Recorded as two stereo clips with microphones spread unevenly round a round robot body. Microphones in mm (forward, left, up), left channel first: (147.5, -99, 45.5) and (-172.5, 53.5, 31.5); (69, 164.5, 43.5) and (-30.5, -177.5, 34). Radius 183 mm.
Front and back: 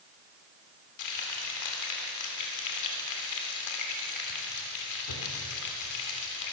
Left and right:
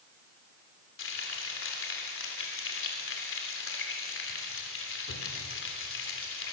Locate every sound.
1.0 s frying: 20° left, 3 m